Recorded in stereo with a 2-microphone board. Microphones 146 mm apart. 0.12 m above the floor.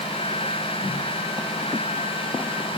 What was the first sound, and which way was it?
Only background noise.